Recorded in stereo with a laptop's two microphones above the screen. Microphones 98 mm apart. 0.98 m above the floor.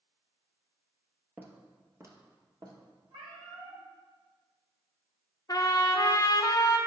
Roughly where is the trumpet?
Left.